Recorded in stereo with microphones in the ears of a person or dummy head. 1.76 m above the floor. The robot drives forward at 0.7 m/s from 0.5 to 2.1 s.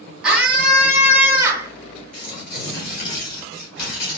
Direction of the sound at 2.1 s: 50° left (ahead or behind).